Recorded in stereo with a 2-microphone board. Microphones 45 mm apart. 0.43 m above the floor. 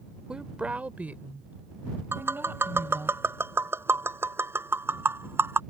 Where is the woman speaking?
20° right (ahead or behind); by 3.1 s 55° right (ahead or behind).